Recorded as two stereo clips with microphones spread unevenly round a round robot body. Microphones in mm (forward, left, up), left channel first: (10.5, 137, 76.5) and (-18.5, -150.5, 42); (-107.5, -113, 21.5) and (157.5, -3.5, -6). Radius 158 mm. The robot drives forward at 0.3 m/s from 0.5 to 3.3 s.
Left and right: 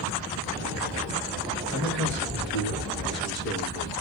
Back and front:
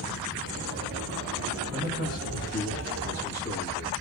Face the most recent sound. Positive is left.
turn(degrees=140)